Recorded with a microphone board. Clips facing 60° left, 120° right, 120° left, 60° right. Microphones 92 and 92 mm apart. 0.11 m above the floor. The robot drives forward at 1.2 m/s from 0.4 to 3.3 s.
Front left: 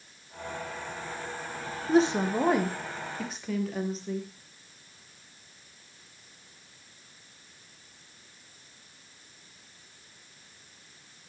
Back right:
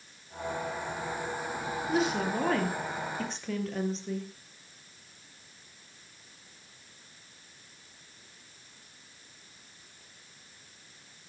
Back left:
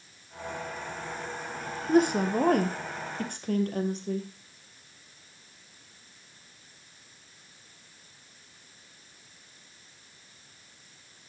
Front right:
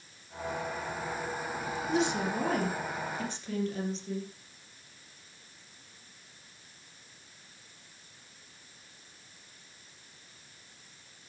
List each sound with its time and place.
1.9 s a woman speaking: 100° left, 1.9 m; by 4.3 s 145° left, 2.5 m